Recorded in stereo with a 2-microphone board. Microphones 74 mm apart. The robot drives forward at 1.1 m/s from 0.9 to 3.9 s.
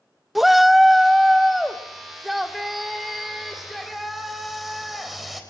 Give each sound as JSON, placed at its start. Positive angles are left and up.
{"t": 0.3, "sound": "a shout", "side_deg": 0, "distance_m": 0.5}